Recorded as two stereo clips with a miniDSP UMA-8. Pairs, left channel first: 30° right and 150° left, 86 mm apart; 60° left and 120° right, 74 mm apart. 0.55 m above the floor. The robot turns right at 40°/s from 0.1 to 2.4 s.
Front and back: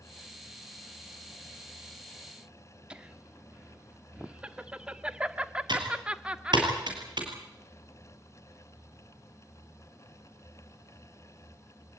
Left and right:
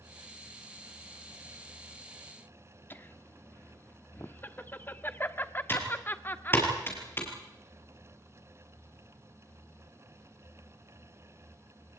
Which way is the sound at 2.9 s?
85° left.